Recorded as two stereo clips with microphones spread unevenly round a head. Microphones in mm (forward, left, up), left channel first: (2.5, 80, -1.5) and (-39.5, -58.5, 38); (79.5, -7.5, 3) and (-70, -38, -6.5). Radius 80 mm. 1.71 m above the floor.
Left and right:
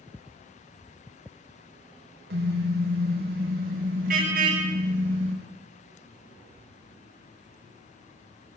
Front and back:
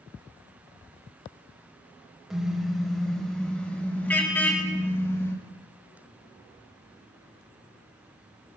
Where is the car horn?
80° right, 4.5 m; by 5.3 s 60° right, 5.5 m.